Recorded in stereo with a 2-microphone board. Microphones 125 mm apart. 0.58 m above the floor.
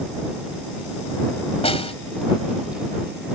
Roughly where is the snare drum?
Left.